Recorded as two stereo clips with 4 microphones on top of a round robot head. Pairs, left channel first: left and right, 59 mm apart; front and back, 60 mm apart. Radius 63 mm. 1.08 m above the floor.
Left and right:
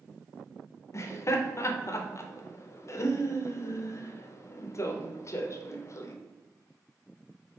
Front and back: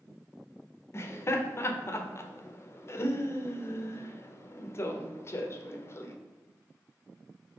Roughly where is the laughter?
Ahead left.